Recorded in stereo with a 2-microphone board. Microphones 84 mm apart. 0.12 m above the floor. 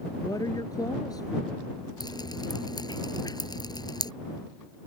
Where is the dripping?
50° left (ahead or behind).